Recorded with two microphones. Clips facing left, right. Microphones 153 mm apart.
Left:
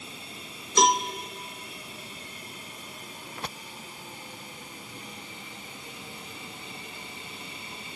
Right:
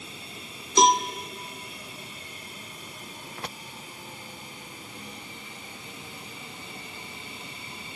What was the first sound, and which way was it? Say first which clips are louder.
A cowbell: right 2 dB; 20° right (ahead or behind).